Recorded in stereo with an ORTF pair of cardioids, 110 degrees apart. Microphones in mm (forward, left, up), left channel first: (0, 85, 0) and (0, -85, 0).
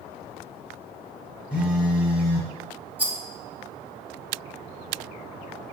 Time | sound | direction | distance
1.5 | a phone buzzing | 5° right | 0.8 m
3.0 | a rattle | 10° right | 0.5 m